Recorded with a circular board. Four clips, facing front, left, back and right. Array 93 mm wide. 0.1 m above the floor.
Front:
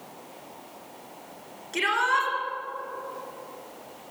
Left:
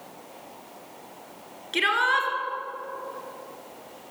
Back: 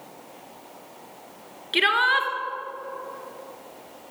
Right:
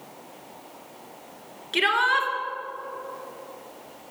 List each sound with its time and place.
1.7 s a shout: 175° right, 1.5 m